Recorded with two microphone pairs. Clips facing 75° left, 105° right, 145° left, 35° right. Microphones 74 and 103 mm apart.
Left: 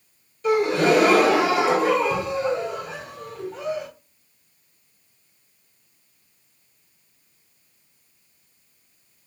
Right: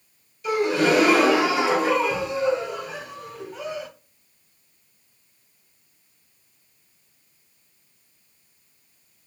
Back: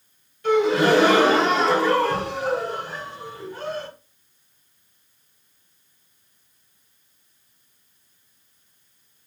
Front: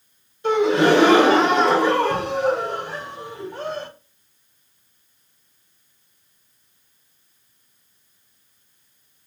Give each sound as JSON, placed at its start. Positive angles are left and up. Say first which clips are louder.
{"t": 0.4, "sound": "a gasp", "louder": "left 2 dB, front 1 dB", "azimuth_deg": 35, "distance_m": 2.5}